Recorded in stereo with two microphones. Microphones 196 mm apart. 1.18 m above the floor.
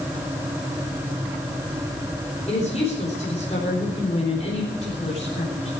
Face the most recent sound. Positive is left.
turn(degrees=35)  # may be behind; listen again after turning